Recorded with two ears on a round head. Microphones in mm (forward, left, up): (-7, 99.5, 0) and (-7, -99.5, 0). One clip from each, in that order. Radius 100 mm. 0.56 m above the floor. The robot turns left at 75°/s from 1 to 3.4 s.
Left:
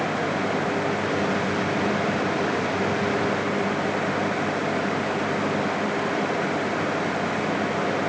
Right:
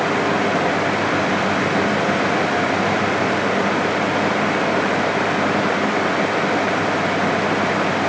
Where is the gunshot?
No gunshot in this recording.